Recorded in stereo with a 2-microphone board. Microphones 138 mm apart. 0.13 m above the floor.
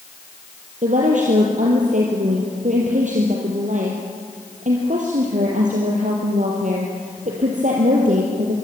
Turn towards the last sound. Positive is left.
turn(degrees=-65)  # may be behind; listen again after turning